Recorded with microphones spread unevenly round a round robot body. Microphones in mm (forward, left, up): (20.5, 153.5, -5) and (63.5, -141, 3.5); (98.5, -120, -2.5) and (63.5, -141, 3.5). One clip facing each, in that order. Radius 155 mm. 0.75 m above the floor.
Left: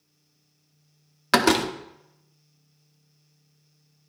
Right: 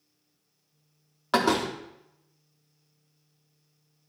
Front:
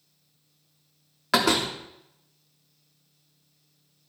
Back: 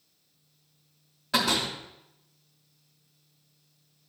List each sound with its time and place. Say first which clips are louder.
1.3 s a door slam: left 4 dB, front 4 dB; 50° left, 0.6 m